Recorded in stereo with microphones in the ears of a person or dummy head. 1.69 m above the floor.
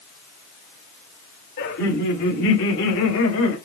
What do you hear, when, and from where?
1.6 s laughter: 55° left (ahead or behind), 1.6 m; by 3.6 s 75° left (ahead or behind), 2.5 m